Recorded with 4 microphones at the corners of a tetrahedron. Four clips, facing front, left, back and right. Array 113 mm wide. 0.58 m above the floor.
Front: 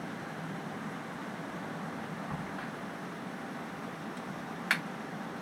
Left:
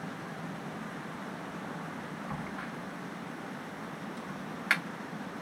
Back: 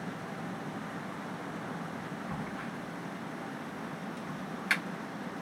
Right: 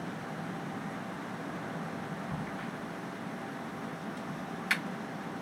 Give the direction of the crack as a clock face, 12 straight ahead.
10 o'clock.